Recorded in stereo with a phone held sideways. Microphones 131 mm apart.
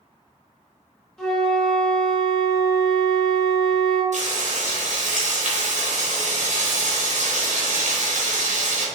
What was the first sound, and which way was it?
A flute, 5° left (ahead or behind).